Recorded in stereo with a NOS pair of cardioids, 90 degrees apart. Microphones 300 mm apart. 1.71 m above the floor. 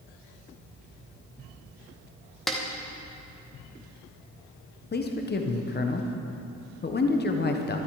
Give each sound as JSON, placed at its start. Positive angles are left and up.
{"t": 2.5, "sound": "a snare drum", "azimuth_deg": 0, "distance_m": 2.0}
{"t": 4.9, "sound": "a man speaking", "azimuth_deg": 30, "distance_m": 1.4}